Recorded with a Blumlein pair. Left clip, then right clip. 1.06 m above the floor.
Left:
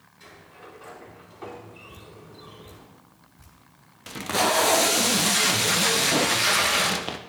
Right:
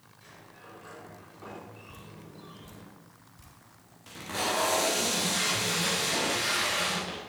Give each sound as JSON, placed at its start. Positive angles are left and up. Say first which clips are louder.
{"t": 0.2, "sound": "a sliding door", "louder": "left 5 dB", "azimuth_deg": 30, "distance_m": 4.0}
{"t": 1.9, "sound": "dripping", "louder": "left 3 dB", "azimuth_deg": 0, "distance_m": 2.5}
{"t": 4.1, "sound": "tape being pulled", "louder": "left 8 dB", "azimuth_deg": 60, "distance_m": 0.8}